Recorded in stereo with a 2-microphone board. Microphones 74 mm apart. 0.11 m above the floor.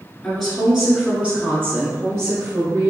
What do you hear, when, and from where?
0.2 s a woman speaking: 10° left (ahead or behind), 1.4 m; by 2.9 s 45° right (ahead or behind), 1.8 m